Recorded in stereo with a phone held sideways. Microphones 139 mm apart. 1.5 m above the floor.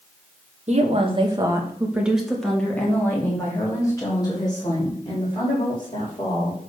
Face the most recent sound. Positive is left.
turn(degrees=35)  # may be behind; listen again after turning